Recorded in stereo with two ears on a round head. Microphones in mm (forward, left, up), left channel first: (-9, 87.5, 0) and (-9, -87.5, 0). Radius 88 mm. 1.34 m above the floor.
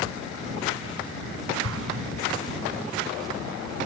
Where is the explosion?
85° right.